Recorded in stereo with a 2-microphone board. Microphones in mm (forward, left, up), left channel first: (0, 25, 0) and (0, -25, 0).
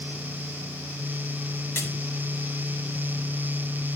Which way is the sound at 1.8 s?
55° left (ahead or behind).